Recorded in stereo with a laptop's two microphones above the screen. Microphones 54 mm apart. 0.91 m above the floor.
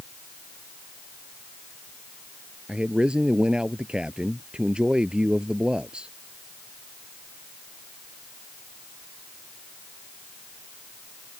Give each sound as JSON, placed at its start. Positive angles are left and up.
{"t": 2.7, "sound": "a man speaking", "side_deg": -20}